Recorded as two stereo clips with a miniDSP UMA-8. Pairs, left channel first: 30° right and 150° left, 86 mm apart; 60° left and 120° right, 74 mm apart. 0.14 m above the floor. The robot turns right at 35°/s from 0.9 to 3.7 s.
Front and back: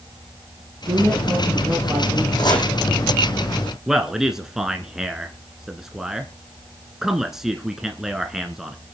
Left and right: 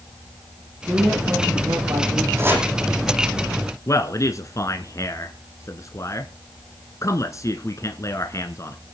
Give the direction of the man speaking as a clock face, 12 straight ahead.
10 o'clock.